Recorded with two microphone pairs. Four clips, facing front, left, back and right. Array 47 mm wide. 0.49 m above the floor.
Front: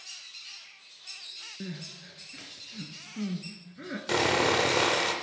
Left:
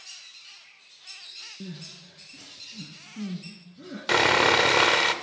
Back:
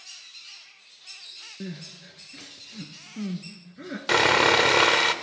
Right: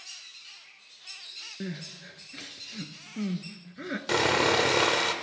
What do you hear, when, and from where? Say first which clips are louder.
1.6 s crying: right 3 dB, back 4 dB; 80° right, 1.2 m
4.1 s sawing: left 4 dB, back 6 dB; 145° left, 1.0 m